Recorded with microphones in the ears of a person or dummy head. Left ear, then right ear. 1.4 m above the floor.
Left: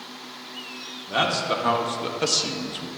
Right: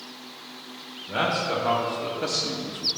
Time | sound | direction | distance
1.1 | a man speaking | 80° left | 1.8 m